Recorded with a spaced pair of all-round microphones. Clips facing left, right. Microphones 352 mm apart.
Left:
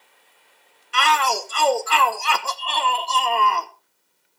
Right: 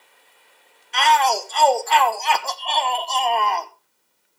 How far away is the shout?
About 1.1 m.